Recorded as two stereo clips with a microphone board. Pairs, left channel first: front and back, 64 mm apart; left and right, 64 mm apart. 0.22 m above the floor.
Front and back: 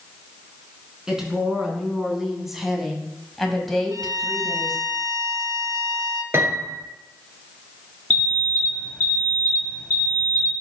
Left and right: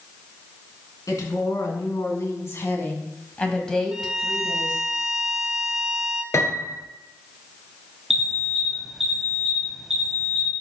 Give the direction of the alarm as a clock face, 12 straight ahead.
12 o'clock.